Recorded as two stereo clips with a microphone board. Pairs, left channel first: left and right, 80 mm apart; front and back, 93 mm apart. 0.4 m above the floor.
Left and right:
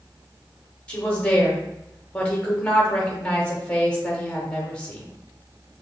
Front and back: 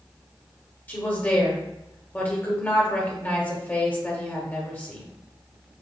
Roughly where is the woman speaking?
Ahead left.